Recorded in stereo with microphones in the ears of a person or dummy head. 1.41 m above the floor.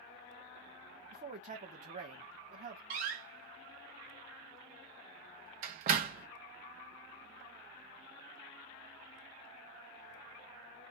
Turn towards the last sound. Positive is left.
turn(degrees=-50)  # may be behind; listen again after turning